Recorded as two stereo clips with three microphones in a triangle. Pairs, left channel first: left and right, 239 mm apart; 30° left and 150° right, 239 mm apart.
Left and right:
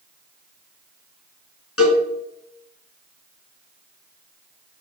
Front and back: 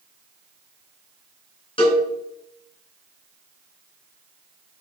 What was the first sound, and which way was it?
A cowbell, 100° left.